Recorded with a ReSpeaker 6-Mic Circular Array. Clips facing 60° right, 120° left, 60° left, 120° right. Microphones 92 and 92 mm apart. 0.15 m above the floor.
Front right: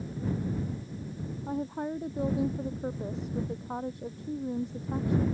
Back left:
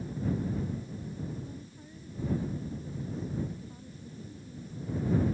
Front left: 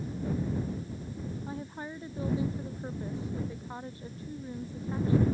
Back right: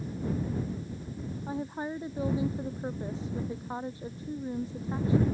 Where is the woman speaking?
50° right.